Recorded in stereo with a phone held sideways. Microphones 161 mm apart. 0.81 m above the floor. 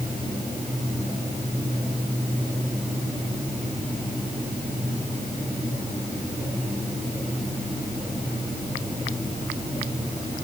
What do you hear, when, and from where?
Only background noise.